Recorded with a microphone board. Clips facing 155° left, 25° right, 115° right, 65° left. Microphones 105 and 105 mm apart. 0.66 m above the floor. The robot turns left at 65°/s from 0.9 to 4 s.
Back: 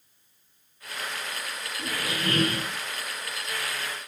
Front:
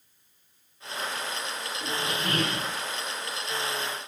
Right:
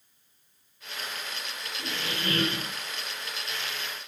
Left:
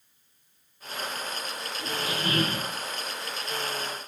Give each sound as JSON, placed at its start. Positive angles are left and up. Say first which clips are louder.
{"t": 1.8, "sound": "a squeak", "louder": "even, left 3 dB", "azimuth_deg": 165, "distance_m": 1.3}